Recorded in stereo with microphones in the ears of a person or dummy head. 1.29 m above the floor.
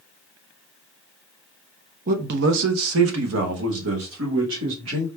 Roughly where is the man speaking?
Right.